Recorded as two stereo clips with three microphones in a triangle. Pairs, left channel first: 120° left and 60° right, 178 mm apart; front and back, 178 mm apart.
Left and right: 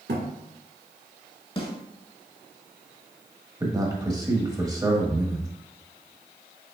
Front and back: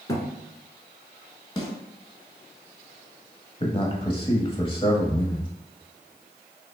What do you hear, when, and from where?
0.1 s a thud: 70° right, 1.2 m
1.6 s a snare drum: 65° left, 1.3 m
3.6 s a man speaking: 10° right, 1.1 m